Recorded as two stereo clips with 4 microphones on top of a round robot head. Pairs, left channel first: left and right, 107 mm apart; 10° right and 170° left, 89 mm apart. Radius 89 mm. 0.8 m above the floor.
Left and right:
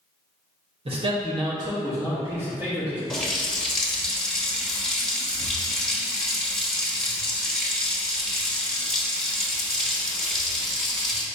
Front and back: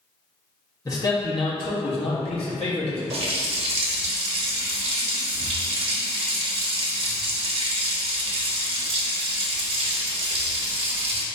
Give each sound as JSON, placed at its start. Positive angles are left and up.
{"t": 0.8, "sound": "a man speaking", "azimuth_deg": -60, "distance_m": 0.9}
{"t": 3.1, "sound": "a running tap", "azimuth_deg": 175, "distance_m": 0.9}